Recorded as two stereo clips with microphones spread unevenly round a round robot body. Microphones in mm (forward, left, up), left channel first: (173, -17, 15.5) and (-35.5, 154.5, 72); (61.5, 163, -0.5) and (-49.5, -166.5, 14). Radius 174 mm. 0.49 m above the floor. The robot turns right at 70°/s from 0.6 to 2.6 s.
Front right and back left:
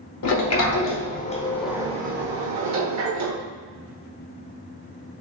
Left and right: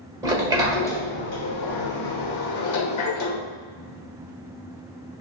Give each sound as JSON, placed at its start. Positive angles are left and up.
{"t": 0.2, "sound": "a sliding door", "azimuth_deg": -30, "distance_m": 1.0}